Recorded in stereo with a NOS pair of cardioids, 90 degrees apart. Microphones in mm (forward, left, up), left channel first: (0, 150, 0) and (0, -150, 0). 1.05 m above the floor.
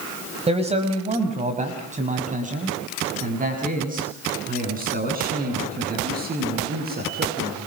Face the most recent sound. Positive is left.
turn(degrees=-30)